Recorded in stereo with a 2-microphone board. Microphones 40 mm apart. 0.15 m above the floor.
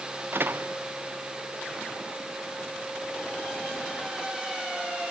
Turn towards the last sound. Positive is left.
turn(degrees=-60)  # may be behind; listen again after turning